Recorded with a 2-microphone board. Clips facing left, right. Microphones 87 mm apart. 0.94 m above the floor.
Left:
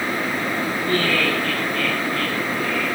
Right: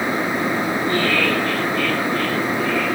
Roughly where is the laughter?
Right.